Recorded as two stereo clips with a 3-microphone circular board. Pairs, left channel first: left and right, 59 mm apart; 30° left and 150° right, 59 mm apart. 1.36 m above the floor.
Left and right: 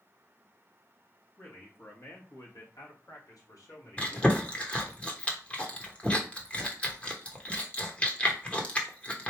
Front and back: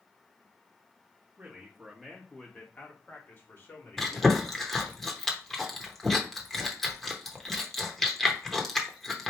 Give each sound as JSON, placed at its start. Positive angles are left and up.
{"t": 1.4, "sound": "a man speaking", "azimuth_deg": 140, "distance_m": 1.4}
{"t": 4.0, "sound": "chewing", "azimuth_deg": 110, "distance_m": 1.0}